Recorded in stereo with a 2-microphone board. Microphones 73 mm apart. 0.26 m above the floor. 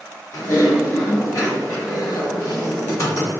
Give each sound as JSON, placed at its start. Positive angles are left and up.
{"t": 0.3, "sound": "typing on a keyboard", "side_deg": 40, "distance_m": 1.6}